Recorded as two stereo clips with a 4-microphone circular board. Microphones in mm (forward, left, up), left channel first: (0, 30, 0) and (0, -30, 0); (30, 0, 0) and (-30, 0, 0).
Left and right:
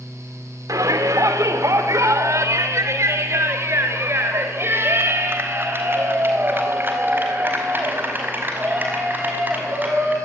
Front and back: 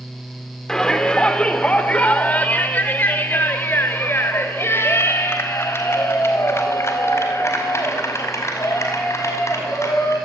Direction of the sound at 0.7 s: 80° right.